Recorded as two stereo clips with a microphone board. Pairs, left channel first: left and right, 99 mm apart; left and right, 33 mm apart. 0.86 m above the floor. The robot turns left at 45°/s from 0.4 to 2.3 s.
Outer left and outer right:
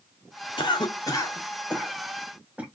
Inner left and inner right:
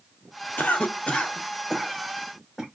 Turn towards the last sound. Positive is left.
turn(degrees=-10)  # may be behind; listen again after turning